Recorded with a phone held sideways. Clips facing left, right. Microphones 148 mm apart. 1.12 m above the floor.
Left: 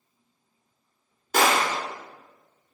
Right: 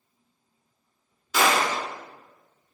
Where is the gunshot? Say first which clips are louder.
Left 1 dB; 55° left (ahead or behind), 0.8 m.